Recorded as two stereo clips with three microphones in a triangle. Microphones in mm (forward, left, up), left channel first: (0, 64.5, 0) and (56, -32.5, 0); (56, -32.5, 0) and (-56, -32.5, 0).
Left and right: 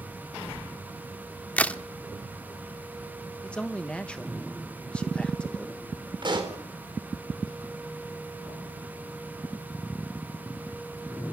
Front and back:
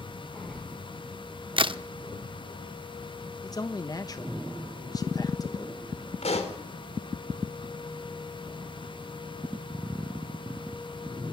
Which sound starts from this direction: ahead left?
A man speaking, at 3.4 s.